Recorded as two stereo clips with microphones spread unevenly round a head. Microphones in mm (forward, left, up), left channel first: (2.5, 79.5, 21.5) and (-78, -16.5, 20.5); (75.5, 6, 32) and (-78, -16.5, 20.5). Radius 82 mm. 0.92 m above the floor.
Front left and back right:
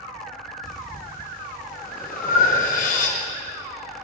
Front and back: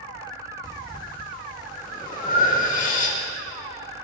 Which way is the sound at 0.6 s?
50° left.